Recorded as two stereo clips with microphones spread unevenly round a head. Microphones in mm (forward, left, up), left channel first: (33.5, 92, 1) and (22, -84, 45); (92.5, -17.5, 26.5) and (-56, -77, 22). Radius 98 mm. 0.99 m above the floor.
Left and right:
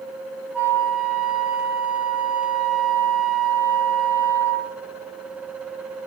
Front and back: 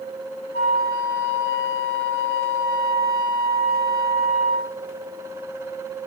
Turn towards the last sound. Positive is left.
turn(degrees=180)